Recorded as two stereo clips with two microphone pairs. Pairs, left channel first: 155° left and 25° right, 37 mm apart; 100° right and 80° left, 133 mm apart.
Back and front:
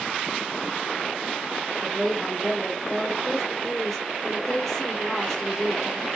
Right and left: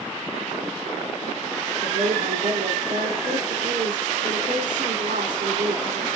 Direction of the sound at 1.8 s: 75° left.